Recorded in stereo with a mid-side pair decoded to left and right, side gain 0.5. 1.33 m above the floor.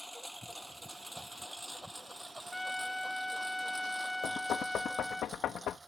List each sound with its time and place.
0.0 s a lawn mower: straight ahead; by 5.9 s 20° right
2.5 s a trumpet: 5° left
4.2 s knocking: 60° left